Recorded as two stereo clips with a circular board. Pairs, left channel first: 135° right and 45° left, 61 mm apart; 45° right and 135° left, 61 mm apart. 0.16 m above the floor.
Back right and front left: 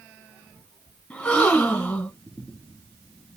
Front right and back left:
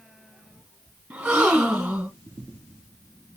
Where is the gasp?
175° right, 1.3 m.